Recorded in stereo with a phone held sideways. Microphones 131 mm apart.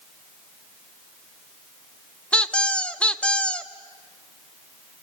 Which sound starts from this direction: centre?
A squeak, at 2.3 s.